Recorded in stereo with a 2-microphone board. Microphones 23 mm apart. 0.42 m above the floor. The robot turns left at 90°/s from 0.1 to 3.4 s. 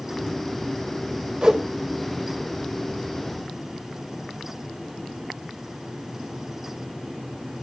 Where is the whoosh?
40° right (ahead or behind), 1.8 m; by 1.6 s 25° right (ahead or behind), 1.8 m.